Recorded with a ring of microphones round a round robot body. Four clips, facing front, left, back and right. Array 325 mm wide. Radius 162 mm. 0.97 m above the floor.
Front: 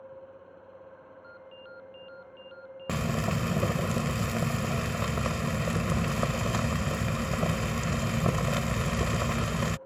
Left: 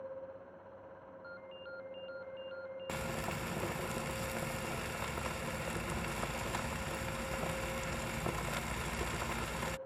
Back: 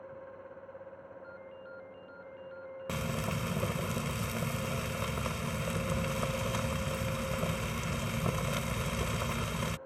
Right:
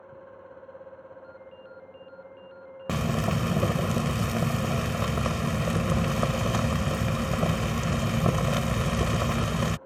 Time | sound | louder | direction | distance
1.2 | a ringtone | right 3 dB, front 2 dB | 35° left | ?
2.9 | frying | right 13 dB, front 6 dB | 65° right | ?